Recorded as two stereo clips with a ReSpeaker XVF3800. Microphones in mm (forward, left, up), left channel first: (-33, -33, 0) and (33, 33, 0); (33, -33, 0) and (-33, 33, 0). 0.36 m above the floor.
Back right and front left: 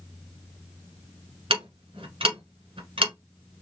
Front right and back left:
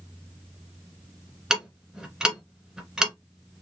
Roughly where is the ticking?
Ahead left.